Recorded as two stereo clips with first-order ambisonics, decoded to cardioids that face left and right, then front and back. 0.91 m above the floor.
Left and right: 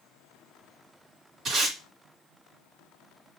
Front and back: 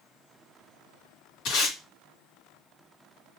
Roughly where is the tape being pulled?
Ahead right.